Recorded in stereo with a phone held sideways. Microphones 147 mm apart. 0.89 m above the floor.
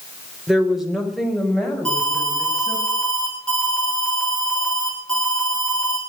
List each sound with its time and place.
0.5 s a woman speaking: 5° right (ahead or behind), 3.5 m; by 2.8 s 5° left (ahead or behind), 6.5 m
1.9 s an alarm: 5° left (ahead or behind), 4.5 m